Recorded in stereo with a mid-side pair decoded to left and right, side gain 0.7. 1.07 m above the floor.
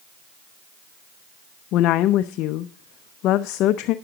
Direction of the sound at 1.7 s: 55° left.